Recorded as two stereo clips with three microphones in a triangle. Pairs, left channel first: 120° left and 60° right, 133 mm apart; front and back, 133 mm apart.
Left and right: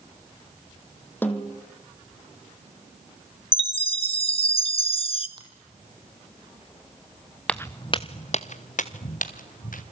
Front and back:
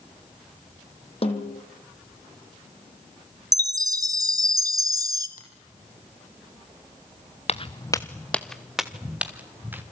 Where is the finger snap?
Straight ahead, 6 m.